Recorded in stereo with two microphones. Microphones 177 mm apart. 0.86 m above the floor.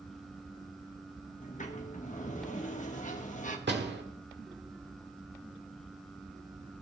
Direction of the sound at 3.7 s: 80° right.